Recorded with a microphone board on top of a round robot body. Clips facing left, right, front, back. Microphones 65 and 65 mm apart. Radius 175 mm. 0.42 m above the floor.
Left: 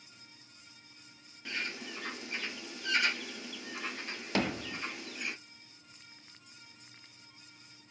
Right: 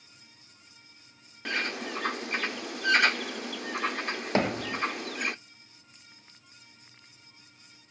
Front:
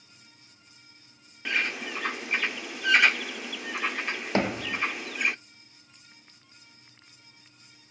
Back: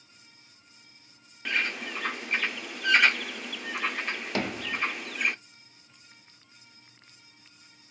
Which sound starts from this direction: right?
A bird, at 1.4 s.